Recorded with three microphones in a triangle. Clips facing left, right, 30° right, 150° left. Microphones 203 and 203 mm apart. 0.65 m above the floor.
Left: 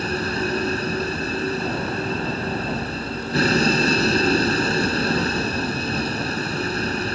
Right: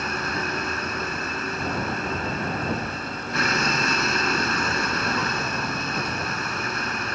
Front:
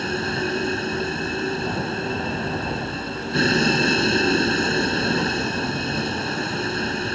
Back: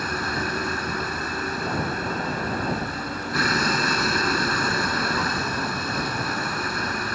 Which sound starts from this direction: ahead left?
A vehicle, at 0.0 s.